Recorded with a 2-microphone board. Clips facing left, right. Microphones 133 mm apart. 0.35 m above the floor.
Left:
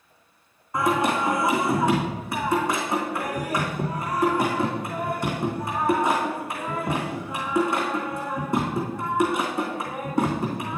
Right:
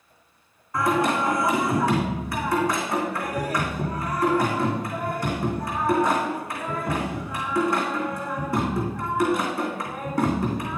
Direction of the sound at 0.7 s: 20° left (ahead or behind).